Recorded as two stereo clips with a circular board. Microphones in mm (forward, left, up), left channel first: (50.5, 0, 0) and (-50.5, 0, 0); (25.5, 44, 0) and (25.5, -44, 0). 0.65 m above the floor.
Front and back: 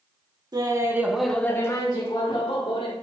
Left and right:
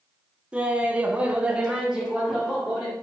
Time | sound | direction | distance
0.5 | laughter | 160° right | 1.4 m